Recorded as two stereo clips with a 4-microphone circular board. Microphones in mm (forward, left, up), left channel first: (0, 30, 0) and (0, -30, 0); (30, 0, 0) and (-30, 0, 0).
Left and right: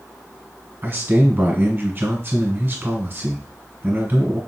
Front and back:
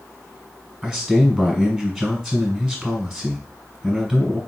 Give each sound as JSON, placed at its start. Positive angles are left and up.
{"t": 0.8, "sound": "a man speaking", "azimuth_deg": -105, "distance_m": 1.6}